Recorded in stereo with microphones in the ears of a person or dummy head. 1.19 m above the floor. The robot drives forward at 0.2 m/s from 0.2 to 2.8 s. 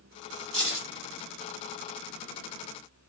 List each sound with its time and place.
0.5 s keys jangling: 45° right (ahead or behind), 0.9 m; by 0.9 s 40° right (ahead or behind), 0.9 m